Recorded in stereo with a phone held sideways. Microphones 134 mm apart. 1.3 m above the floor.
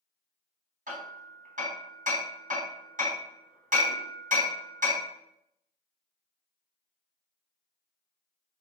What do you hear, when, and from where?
0.9 s hammering: 75° right (ahead or behind), 3.5 m